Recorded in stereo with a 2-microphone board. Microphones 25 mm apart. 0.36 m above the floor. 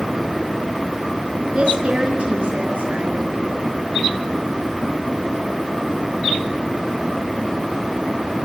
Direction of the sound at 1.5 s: 45° right (ahead or behind).